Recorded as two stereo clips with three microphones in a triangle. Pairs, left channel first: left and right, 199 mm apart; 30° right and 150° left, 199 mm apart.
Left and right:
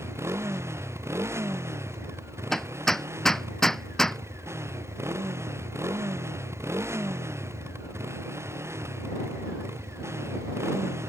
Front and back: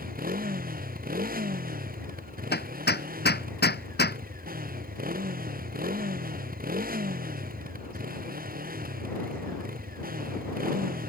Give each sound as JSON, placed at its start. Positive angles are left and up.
{"t": 0.0, "sound": "a motorcycle", "azimuth_deg": -165}
{"t": 2.5, "sound": "hammering", "azimuth_deg": 0}